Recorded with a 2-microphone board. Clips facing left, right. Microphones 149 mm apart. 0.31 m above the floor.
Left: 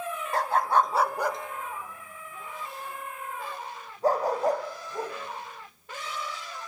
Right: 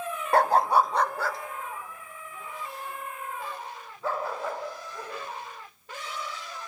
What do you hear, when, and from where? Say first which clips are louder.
0.3 s a dog barking: right 3 dB; 65° right (ahead or behind), 0.5 m; by 6.7 s 40° left (ahead or behind), 8 m